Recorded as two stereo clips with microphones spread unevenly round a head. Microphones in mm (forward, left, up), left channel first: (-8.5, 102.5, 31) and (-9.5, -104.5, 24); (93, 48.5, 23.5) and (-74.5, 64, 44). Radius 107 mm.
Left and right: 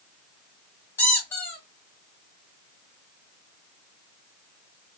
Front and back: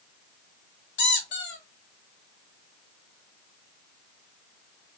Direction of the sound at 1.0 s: 10° left.